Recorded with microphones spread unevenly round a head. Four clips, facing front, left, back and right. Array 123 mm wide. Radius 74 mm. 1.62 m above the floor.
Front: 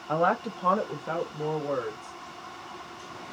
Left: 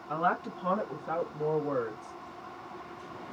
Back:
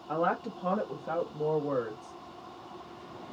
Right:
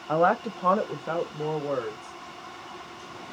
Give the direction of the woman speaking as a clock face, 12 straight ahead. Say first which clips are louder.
Right 7 dB, front 4 dB; 2 o'clock.